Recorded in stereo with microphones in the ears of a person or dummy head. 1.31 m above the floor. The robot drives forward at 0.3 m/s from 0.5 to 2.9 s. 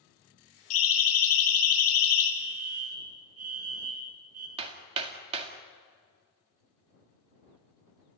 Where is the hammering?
30° right (ahead or behind), 2 m.